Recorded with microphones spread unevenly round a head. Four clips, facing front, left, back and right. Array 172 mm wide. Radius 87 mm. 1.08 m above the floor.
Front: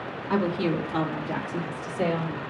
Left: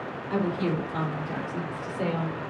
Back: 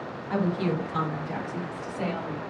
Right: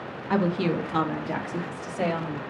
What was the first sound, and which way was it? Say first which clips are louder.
A woman speaking: right 3 dB, front 2 dB; 65° right.